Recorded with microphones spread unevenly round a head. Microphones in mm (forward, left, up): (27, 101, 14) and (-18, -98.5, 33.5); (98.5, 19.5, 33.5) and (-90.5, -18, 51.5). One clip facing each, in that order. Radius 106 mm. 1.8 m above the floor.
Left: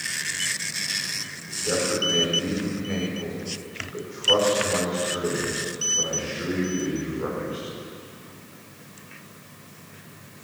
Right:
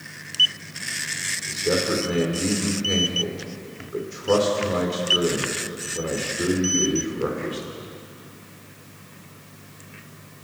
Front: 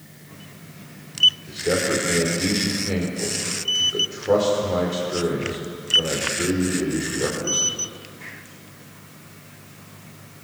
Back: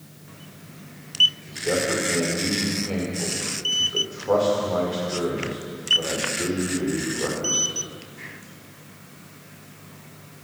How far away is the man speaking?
About 5.5 m.